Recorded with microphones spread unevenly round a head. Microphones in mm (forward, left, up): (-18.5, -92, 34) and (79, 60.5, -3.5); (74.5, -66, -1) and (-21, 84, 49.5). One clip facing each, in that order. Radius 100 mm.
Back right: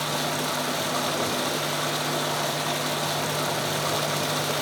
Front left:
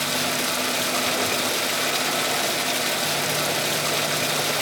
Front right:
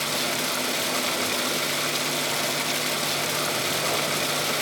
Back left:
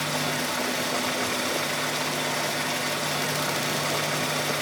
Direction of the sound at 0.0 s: 10° right.